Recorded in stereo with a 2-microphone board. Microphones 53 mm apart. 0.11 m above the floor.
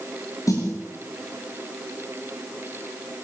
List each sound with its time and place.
0.5 s a snare drum: 90° left, 9 m